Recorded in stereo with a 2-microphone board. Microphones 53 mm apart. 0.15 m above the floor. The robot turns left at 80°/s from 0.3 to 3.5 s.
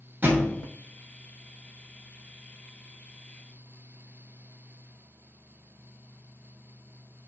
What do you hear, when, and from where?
0.2 s a thud: 35° right (ahead or behind), 0.9 m; by 0.6 s 55° right (ahead or behind), 0.9 m